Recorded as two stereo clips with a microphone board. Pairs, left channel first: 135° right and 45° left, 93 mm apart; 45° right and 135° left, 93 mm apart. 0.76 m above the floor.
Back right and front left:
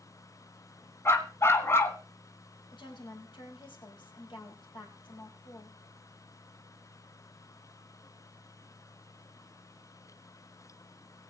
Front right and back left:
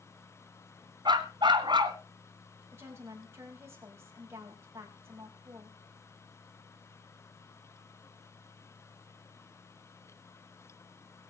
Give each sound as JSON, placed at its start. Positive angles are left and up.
{"t": 1.1, "sound": "a dog barking", "azimuth_deg": 165, "distance_m": 1.4}
{"t": 2.7, "sound": "a woman speaking", "azimuth_deg": -165, "distance_m": 4.5}